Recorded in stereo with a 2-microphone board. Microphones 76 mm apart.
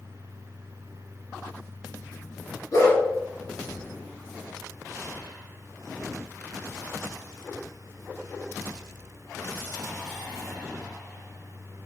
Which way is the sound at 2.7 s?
50° left (ahead or behind).